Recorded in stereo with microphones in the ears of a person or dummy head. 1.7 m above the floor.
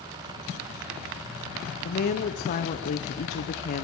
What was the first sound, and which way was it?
A woman speaking, 30° left (ahead or behind).